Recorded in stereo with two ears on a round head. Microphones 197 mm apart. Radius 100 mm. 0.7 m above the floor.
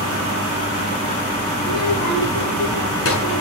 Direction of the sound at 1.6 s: 70° left (ahead or behind).